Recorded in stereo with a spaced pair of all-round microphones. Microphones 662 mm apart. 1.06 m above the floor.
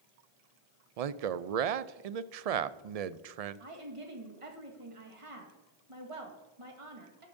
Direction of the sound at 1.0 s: 65° right (ahead or behind).